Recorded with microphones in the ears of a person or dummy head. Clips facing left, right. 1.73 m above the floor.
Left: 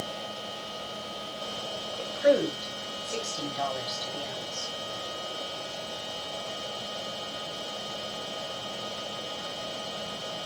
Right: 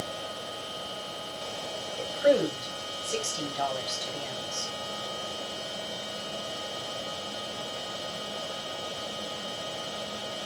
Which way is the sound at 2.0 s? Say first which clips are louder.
Even; centre (ahead or behind).